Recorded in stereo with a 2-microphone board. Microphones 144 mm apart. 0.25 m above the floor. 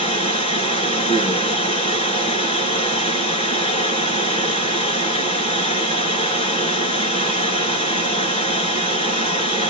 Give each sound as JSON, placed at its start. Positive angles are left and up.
{"t": 0.0, "sound": "running water", "side_deg": 45, "distance_m": 3.0}